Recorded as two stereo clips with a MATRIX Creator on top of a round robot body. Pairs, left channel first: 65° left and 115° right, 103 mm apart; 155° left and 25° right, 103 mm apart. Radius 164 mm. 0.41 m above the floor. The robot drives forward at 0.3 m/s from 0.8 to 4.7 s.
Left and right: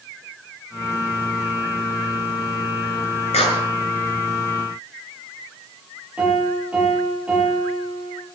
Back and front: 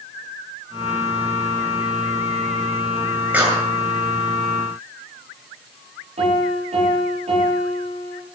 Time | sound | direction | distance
3.3 | a clap | 50° left | 7.5 m
6.2 | a piano | 35° right | 7.5 m